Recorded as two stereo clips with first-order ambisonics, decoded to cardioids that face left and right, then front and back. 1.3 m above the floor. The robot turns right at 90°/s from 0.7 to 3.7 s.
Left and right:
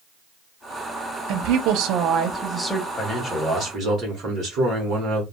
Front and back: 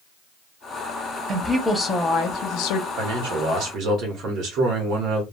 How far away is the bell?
I don't hear a bell.